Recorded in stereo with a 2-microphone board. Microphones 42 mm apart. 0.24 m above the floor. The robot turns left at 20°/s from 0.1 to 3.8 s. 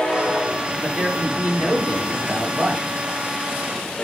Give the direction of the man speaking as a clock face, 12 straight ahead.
1 o'clock.